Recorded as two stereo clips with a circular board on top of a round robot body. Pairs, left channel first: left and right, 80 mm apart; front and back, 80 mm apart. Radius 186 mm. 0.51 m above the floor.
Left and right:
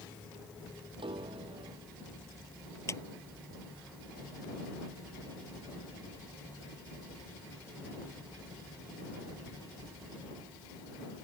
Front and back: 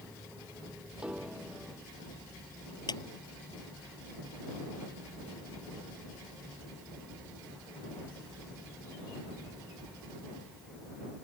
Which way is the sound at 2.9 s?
35° left.